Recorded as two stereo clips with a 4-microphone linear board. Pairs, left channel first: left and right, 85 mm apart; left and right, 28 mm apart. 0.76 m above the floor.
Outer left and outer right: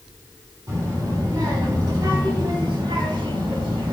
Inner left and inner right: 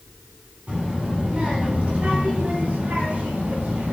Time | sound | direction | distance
0.7 | a child speaking | 45° right (ahead or behind) | 5.5 m